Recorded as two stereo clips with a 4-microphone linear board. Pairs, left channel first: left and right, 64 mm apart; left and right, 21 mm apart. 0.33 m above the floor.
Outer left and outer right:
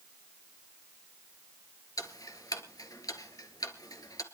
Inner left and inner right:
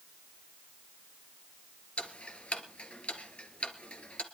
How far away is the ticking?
About 1.7 m.